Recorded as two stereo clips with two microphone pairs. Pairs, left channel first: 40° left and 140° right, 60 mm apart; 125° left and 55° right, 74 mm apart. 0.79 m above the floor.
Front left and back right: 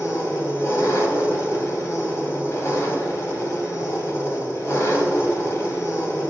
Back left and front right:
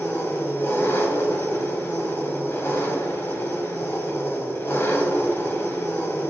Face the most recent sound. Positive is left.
turn(degrees=70)